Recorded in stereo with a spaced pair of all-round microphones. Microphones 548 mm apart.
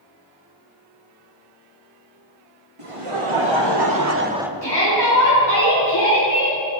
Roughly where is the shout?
Left.